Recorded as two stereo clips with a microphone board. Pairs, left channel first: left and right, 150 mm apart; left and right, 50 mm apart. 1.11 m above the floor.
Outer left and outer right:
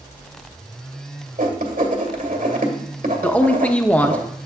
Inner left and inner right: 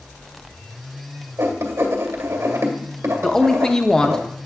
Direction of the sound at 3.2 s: 10° left (ahead or behind).